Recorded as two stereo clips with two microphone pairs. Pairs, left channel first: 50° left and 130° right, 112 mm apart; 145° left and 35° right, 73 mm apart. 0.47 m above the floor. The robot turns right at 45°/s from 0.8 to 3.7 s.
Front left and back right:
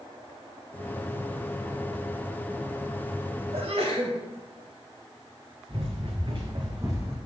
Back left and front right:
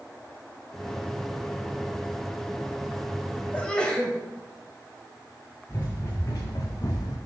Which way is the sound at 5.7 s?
165° right.